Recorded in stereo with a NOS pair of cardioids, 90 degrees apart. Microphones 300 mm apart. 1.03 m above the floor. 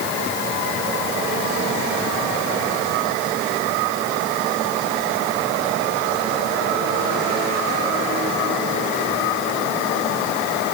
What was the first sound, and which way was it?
Only background noise.